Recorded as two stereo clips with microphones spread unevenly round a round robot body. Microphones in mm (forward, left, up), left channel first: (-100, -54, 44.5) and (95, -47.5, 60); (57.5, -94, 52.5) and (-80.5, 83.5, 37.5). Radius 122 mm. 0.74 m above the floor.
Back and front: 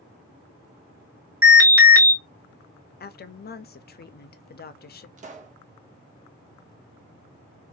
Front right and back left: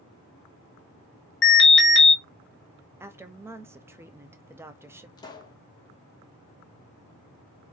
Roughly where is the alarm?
Right.